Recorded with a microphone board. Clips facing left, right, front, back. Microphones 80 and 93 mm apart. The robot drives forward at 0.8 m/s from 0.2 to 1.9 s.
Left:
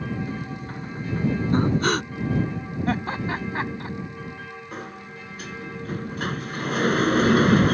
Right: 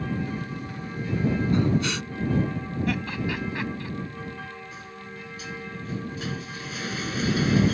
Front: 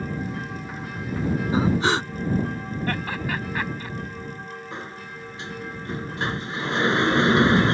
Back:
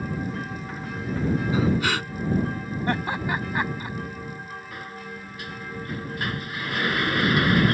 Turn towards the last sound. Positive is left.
turn(degrees=60)